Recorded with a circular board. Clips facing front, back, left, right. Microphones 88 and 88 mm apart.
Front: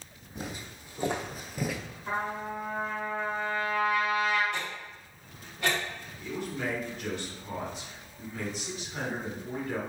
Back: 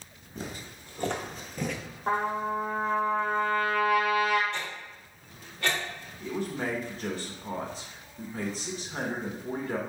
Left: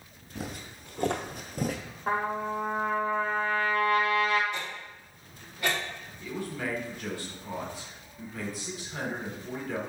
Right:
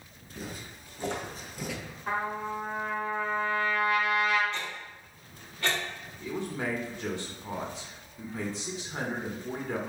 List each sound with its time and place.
0.3 s footsteps: 75° left, 1.3 m; by 1.8 s 85° left, 0.5 m
2.1 s a trumpet: 145° left, 0.7 m
4.5 s ticking: 40° left, 1.2 m
6.2 s a man speaking: 145° right, 0.9 m